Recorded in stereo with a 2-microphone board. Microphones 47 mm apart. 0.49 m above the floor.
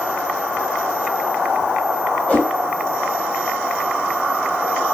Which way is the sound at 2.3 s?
30° left (ahead or behind).